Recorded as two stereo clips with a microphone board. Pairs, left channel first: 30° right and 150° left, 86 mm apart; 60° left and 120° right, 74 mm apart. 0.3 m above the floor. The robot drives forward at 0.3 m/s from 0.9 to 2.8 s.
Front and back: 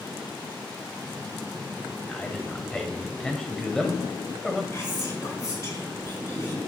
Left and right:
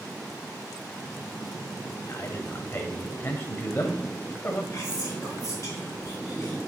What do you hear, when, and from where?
2.1 s a man speaking: 35° left, 1.2 m; by 4.6 s 50° left, 1.1 m
4.7 s whispering: 15° left, 4.5 m